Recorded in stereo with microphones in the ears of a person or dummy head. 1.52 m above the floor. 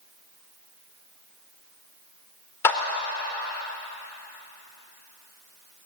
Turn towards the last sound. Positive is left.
turn(degrees=15)  # may be behind; listen again after turning